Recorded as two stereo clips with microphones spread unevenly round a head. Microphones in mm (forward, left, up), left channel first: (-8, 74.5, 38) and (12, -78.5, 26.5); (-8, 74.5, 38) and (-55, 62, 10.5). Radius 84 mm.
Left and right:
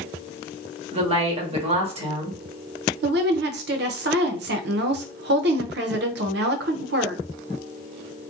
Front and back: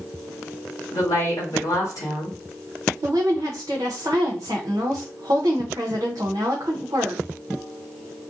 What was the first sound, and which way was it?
A woman speaking, 30° right.